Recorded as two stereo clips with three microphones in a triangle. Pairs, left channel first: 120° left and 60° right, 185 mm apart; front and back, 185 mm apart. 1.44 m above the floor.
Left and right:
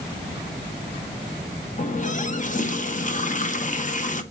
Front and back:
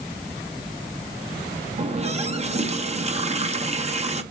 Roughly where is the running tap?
Behind left.